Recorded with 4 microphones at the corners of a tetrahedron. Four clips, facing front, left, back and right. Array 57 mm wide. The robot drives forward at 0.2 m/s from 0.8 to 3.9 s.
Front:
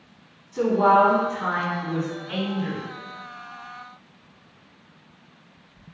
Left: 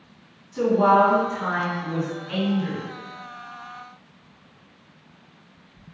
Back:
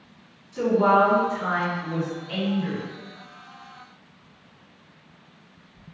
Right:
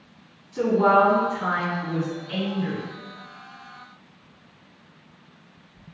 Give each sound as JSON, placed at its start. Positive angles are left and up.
{"t": 0.5, "sound": "a woman speaking", "azimuth_deg": 35, "distance_m": 1.9}